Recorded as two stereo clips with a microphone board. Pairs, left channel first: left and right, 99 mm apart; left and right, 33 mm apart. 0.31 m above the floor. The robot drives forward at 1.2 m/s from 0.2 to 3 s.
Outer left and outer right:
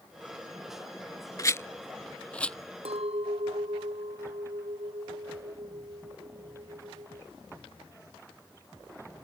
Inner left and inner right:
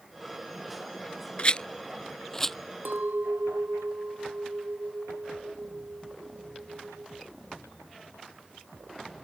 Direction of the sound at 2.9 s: 85° right.